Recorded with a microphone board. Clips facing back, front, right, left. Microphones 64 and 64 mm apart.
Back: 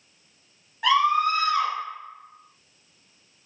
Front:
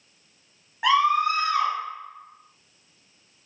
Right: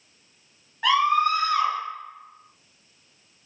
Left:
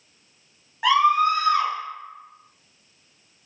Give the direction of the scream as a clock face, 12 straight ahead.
11 o'clock.